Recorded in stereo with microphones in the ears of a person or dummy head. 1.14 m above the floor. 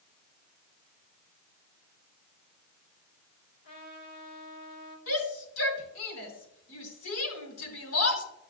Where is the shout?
75° left (ahead or behind), 4 m.